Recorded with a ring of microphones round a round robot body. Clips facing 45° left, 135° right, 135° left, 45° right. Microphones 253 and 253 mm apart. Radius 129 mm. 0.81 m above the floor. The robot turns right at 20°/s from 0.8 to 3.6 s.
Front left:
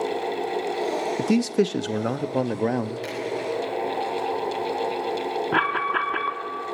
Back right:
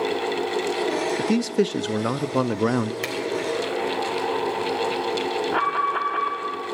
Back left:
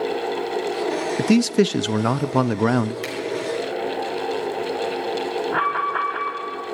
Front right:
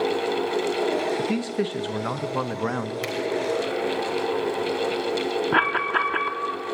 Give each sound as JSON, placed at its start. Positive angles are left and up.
{"t": 1.2, "sound": "a man speaking", "azimuth_deg": 125, "distance_m": 0.7}
{"t": 3.0, "sound": "a finger snap", "azimuth_deg": -130, "distance_m": 4.5}
{"t": 5.5, "sound": "an alarm", "azimuth_deg": -5, "distance_m": 2.0}